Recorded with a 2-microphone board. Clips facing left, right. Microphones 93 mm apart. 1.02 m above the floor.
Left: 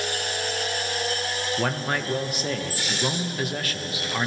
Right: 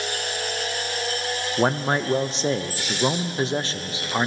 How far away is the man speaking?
About 0.6 m.